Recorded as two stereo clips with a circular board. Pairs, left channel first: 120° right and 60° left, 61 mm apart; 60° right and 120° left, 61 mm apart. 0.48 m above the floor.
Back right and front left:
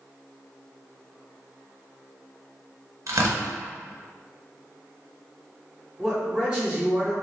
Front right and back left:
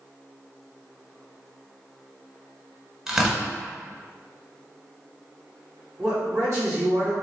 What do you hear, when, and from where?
3.1 s tearing paper: 40° left, 0.9 m
6.0 s a man speaking: 130° left, 1.6 m